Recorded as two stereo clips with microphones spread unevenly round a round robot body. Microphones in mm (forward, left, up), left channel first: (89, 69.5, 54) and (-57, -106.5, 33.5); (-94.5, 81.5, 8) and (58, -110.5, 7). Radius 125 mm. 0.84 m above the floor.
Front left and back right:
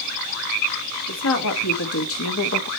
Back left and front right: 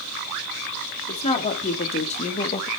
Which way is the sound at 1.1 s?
60° left.